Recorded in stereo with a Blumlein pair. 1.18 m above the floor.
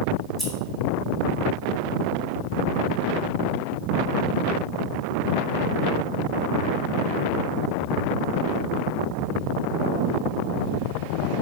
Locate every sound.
0.4 s scissors: 15° right, 1.1 m